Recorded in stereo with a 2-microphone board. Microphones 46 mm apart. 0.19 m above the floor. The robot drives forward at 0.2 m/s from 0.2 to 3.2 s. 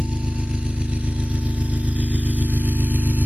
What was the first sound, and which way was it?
An engine running, 20° right (ahead or behind).